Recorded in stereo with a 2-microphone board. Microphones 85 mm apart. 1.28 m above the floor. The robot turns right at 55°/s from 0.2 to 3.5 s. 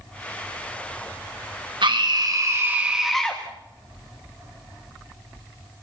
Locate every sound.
1.8 s a scream: 70° right, 1.6 m; by 3.4 s 20° left, 1.6 m